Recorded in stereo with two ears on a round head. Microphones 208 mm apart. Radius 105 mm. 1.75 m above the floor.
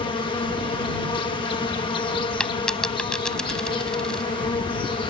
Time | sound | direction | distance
0.0 | an insect | 25° left (ahead or behind) | ?
2.4 | a dropped coin | 5° left (ahead or behind) | ?